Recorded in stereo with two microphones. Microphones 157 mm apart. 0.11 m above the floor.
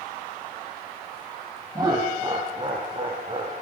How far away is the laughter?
About 3.5 m.